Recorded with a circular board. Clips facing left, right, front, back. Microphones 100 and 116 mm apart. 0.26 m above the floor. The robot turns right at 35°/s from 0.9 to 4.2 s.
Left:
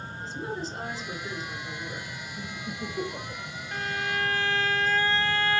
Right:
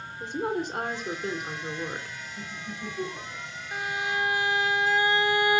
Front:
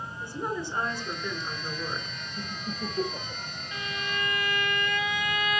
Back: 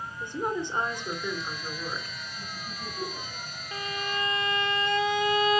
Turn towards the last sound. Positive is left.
turn(degrees=-150)